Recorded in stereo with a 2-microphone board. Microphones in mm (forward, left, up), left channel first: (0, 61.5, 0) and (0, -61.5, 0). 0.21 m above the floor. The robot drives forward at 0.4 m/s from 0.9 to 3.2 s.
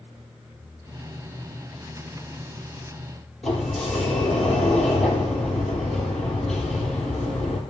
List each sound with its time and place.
3.4 s a sliding door: 5° left (ahead or behind), 3.5 m